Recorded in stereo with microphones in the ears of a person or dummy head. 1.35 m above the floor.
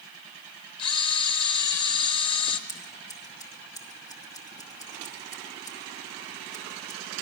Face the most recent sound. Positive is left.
turn(degrees=25)  # may be behind; listen again after turning